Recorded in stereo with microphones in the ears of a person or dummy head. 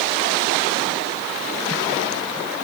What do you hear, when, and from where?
Only background noise.